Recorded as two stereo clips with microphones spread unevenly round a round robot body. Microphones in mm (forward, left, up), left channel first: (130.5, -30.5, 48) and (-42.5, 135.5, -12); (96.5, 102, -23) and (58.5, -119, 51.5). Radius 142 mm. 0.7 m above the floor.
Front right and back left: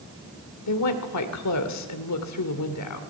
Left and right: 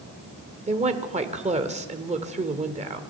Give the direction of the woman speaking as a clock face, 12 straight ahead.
1 o'clock.